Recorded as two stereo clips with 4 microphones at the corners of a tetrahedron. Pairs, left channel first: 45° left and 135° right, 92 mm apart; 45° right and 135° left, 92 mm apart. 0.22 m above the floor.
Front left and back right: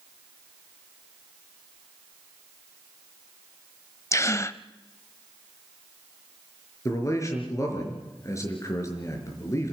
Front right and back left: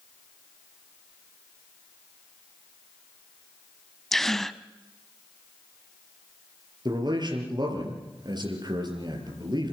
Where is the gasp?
35° left, 0.6 m.